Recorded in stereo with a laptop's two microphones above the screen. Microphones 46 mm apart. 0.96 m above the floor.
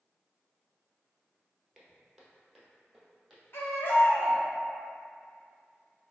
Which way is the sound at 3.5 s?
55° left (ahead or behind).